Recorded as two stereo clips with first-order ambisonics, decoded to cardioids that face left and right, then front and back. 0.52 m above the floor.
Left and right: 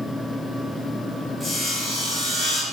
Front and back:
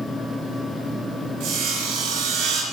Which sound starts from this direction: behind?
Sawing, at 1.4 s.